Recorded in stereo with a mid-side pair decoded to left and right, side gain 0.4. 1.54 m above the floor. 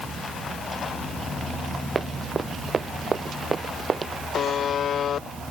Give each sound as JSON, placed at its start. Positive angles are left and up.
{"t": 1.9, "sound": "running footsteps", "azimuth_deg": -40}
{"t": 4.3, "sound": "a buzzer", "azimuth_deg": 65}